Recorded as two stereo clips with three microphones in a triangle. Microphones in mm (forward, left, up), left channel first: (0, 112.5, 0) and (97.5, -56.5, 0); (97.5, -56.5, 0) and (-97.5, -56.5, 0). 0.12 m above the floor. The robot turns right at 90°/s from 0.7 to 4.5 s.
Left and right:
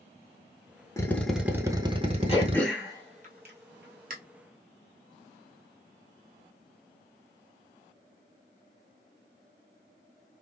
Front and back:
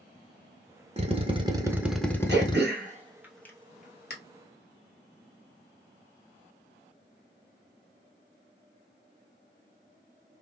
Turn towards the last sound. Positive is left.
turn(degrees=15)